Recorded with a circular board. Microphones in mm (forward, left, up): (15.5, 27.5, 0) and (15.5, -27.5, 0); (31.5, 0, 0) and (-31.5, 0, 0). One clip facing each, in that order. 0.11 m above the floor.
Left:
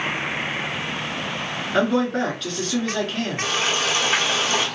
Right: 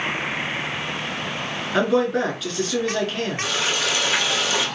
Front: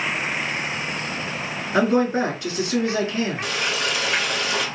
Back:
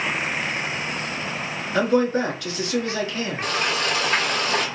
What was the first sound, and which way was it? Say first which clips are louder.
A man speaking: right 1 dB, front 1 dB; 5° right.